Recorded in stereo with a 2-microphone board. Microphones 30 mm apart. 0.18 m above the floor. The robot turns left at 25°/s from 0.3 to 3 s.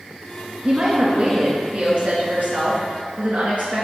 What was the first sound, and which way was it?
A woman speaking, 30° right.